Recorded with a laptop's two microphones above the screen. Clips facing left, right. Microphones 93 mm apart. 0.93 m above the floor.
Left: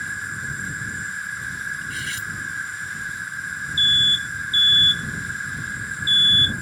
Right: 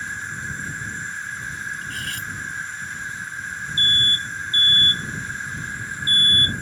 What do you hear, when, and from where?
0.0 s an insect: 10° left (ahead or behind)
1.8 s cutlery clinking: 55° right (ahead or behind)
3.8 s an alarm: 40° right (ahead or behind)